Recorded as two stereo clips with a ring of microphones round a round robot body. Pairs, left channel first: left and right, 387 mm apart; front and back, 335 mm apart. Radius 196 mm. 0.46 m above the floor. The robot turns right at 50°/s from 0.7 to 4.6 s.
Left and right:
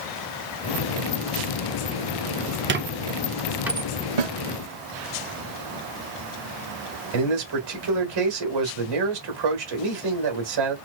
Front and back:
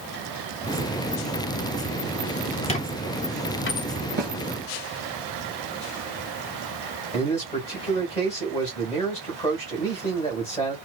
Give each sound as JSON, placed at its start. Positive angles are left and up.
{"t": 2.7, "sound": "a squeak", "azimuth_deg": -55, "distance_m": 0.6}
{"t": 4.2, "sound": "a snare drum", "azimuth_deg": -115, "distance_m": 2.0}
{"t": 7.1, "sound": "a man speaking", "azimuth_deg": -75, "distance_m": 2.5}